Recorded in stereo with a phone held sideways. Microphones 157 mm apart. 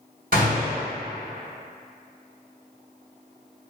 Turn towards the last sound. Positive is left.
turn(degrees=-65)  # may be behind; listen again after turning